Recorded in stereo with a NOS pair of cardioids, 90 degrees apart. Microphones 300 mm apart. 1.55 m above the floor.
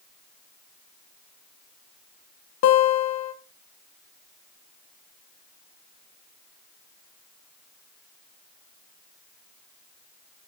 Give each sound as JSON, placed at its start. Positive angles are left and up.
{"t": 2.6, "sound": "a guitar", "azimuth_deg": 60, "distance_m": 1.6}